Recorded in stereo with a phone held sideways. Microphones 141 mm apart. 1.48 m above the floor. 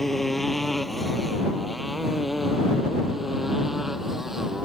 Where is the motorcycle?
Centre (ahead or behind); by 4.7 s 5° right (ahead or behind).